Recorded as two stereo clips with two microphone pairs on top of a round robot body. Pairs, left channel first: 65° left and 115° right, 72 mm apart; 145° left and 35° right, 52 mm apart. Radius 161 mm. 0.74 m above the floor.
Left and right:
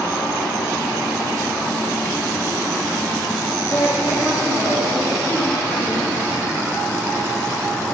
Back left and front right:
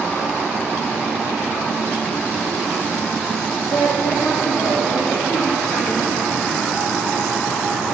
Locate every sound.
3.7 s a woman speaking: 150° left, 2.5 m